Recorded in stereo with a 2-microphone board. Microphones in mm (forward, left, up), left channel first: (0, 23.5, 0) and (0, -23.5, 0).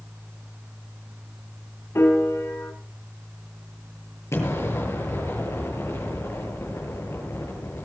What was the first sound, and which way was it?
A piano, 70° left (ahead or behind).